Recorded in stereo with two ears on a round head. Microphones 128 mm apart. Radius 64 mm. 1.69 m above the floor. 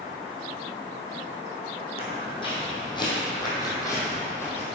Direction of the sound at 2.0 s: 40° left (ahead or behind).